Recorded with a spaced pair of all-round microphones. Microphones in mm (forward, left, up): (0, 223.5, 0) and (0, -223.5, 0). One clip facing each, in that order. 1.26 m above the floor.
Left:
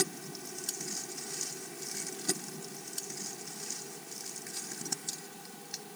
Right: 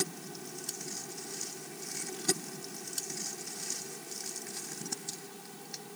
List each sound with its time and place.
Only background noise.